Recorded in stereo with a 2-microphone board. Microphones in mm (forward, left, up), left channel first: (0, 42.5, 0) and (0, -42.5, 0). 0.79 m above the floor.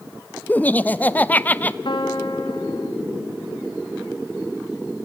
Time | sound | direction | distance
0.5 | laughter | 20° left (ahead or behind) | 0.6 m
1.9 | a piano | 70° left (ahead or behind) | 1.4 m